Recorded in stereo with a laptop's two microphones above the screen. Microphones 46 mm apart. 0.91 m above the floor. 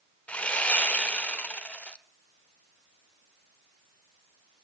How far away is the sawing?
About 0.7 m.